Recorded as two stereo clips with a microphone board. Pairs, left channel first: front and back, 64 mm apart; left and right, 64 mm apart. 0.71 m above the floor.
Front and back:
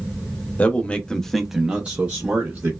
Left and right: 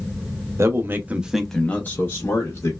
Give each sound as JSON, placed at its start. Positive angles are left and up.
{"t": 0.6, "sound": "a man speaking", "azimuth_deg": -60, "distance_m": 0.8}